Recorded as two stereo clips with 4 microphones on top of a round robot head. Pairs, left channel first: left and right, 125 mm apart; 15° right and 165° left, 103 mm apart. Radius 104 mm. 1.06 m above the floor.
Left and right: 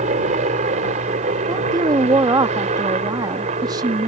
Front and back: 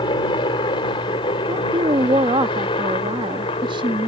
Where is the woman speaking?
145° right.